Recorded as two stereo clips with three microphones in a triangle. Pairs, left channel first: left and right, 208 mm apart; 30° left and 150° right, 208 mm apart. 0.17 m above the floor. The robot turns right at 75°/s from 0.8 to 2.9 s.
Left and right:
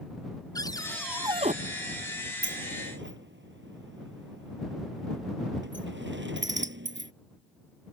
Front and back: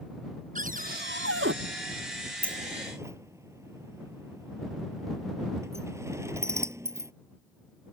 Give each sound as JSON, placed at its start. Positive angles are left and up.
{"t": 0.6, "sound": "a cupboard door", "azimuth_deg": 160}
{"t": 2.4, "sound": "a sliding door", "azimuth_deg": -110}